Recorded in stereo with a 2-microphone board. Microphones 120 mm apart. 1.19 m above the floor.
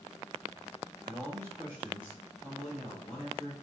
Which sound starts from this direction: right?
A man speaking, at 1.0 s.